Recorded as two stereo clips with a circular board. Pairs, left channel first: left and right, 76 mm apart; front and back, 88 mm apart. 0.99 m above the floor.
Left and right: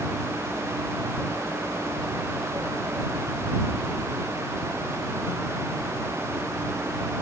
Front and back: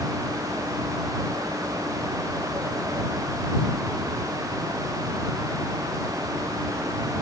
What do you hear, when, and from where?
Only background noise.